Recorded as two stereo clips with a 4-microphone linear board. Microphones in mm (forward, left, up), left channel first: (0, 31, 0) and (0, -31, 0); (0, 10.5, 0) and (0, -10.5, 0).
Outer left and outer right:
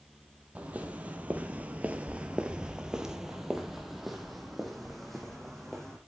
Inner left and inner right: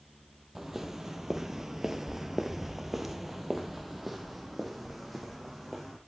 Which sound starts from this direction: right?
Footsteps, at 0.6 s.